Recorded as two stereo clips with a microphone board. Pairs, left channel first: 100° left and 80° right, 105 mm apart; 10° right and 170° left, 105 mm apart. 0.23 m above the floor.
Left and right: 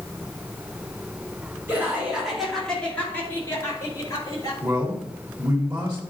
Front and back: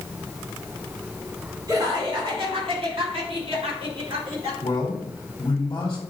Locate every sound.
1.7 s laughter: 145° right, 2.5 m; by 4.5 s 145° left, 4.5 m
4.6 s a man speaking: 45° right, 1.6 m